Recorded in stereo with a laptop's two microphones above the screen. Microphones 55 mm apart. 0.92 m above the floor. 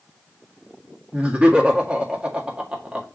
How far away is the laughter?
About 1.8 m.